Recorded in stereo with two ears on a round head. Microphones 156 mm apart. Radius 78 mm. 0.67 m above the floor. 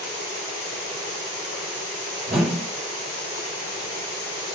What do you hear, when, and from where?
2.3 s a whoosh: 45° right (ahead or behind), 2 m